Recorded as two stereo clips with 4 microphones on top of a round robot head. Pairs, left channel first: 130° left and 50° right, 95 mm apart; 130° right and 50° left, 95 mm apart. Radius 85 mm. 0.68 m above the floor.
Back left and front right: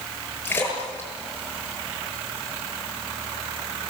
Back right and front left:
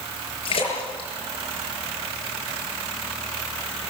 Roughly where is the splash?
Behind.